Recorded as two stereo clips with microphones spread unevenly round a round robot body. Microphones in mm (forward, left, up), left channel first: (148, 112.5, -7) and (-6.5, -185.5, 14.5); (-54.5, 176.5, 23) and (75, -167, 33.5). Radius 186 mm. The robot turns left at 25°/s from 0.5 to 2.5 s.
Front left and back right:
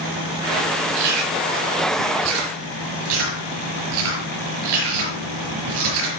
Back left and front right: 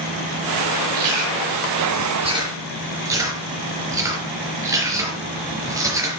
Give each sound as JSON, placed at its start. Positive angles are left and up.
{"t": 0.9, "sound": "chewing", "azimuth_deg": -115, "distance_m": 5.0}